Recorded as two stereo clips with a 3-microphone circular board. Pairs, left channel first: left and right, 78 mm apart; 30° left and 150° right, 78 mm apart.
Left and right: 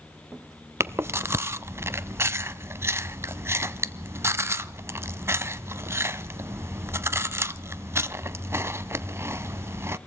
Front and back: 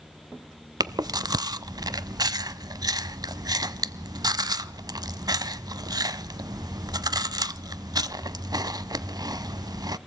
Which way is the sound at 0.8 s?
140° right.